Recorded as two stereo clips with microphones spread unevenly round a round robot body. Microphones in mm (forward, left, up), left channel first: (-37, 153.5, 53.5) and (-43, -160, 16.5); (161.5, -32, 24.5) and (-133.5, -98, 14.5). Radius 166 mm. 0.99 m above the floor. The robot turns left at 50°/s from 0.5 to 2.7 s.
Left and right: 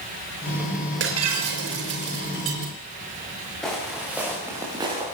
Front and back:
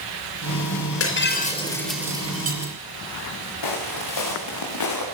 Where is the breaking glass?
30° right, 5.5 m; by 2.7 s 115° right, 5.5 m.